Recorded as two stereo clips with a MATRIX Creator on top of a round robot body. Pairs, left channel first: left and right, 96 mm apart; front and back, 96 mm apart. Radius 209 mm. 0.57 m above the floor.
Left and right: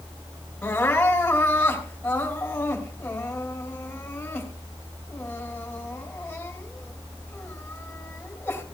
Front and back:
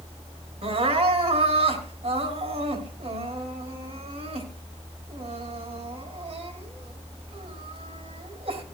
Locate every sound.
0.6 s crying: 165° left, 3 m